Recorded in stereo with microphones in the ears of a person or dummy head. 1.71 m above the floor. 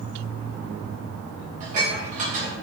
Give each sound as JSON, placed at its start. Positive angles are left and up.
{"t": 1.6, "sound": "dishes clattering", "side_deg": -40, "distance_m": 1.4}